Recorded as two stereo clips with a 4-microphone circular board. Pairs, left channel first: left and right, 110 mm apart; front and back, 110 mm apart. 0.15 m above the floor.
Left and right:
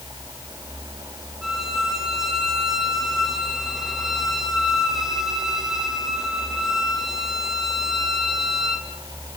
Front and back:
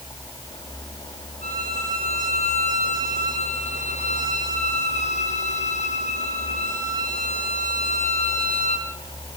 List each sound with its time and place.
1.4 s a violin: 5° right, 2.5 m